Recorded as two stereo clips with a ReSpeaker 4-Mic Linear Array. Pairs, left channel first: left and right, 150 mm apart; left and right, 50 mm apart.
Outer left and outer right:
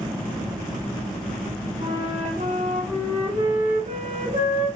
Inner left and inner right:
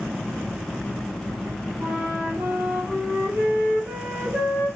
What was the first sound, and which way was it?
A flute, 45° right (ahead or behind).